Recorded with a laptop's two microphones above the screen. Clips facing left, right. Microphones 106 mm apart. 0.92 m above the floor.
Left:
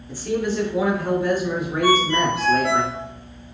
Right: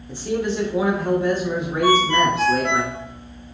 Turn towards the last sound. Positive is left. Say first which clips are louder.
# right 2 dB
turn(degrees=-40)  # may be behind; listen again after turning